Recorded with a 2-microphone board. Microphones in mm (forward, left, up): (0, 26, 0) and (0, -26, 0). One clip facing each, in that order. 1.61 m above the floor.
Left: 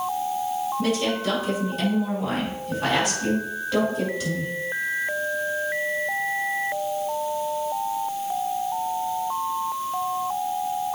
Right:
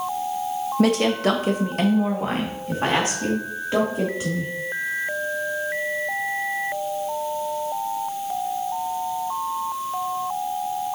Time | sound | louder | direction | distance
0.8 | a woman speaking | right 8 dB | 70° right (ahead or behind) | 1.4 m